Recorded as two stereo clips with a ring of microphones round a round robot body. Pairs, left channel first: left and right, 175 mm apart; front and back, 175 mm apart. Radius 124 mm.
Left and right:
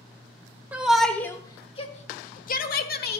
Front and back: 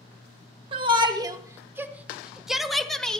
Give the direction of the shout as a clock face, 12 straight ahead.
5 o'clock.